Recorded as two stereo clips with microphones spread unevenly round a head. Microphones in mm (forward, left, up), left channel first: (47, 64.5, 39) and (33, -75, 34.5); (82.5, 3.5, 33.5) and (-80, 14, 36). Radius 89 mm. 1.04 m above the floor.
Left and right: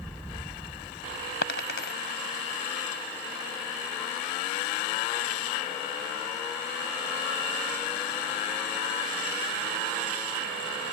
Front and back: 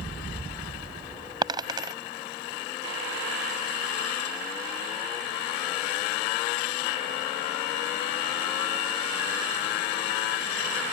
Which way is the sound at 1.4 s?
110° left.